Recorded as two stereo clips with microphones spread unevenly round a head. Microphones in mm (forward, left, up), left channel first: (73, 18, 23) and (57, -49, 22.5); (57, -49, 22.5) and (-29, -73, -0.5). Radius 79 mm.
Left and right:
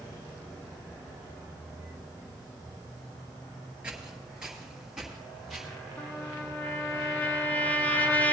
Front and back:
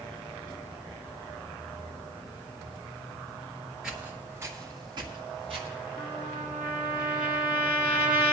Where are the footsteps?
50° right, 1.6 m; by 5.7 s 165° left, 2 m.